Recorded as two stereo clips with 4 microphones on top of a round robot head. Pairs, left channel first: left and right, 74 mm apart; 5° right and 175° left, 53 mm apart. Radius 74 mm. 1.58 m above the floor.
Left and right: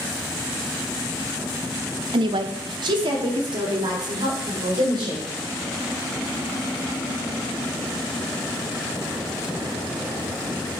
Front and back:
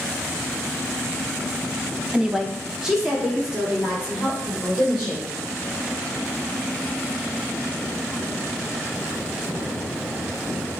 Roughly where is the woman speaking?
Right.